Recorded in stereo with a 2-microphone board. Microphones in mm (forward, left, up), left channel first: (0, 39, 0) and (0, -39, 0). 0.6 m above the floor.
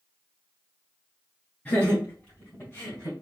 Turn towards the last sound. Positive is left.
turn(degrees=45)  # may be behind; listen again after turning